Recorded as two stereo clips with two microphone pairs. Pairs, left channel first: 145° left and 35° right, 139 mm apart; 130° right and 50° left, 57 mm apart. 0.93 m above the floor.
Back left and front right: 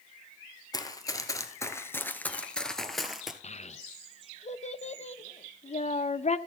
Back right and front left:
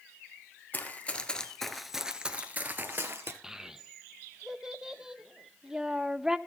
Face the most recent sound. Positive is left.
turn(degrees=130)